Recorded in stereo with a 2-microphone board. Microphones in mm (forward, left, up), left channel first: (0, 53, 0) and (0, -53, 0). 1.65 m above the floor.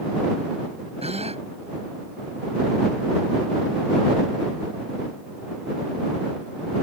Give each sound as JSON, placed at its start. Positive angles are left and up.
{"t": 1.0, "sound": "a gasp", "side_deg": -80}